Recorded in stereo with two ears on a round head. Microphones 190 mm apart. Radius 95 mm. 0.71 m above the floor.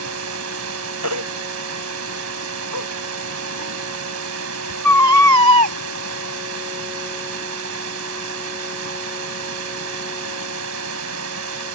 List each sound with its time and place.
0.0 s running water: 80° right
1.0 s a baby crying: 85° right